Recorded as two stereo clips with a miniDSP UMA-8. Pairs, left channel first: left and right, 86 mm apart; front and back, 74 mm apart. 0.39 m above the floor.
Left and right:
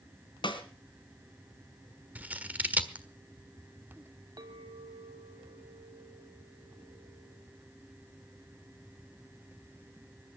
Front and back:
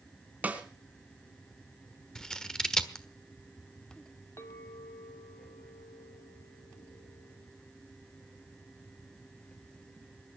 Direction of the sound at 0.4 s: 110° left.